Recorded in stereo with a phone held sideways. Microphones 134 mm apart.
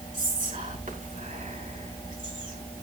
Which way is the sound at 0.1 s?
80° right.